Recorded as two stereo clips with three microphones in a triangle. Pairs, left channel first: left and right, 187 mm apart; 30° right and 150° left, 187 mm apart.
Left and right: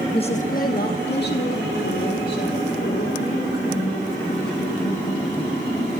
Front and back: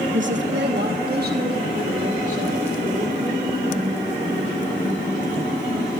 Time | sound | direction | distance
0.1 | a woman speaking | 155° left | 0.9 m